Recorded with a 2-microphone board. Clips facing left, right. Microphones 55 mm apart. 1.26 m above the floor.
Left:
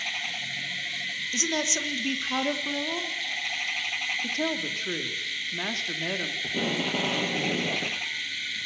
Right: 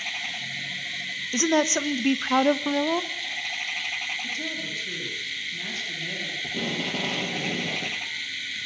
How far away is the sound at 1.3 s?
About 1.0 m.